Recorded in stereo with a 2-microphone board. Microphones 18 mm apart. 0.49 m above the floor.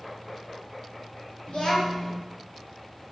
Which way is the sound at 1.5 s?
65° left (ahead or behind).